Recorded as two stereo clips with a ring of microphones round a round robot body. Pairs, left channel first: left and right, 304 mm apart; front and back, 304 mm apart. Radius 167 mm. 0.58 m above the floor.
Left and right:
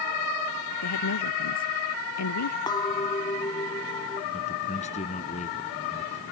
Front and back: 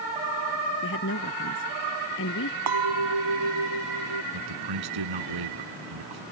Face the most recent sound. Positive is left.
turn(degrees=160)